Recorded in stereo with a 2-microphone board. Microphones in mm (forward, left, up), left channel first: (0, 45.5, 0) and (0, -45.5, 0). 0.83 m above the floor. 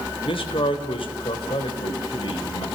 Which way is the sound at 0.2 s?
75° left (ahead or behind).